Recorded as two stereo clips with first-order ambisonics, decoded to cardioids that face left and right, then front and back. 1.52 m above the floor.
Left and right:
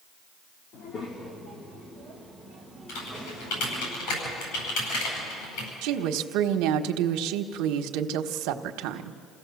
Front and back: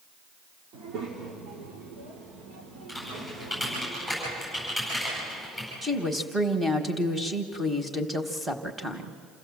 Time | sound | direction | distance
0.7 | a child speaking | 135° left | 1.9 m
2.9 | typing on a keyboard | 95° left | 9.5 m
5.8 | a woman speaking | 100° right | 1.4 m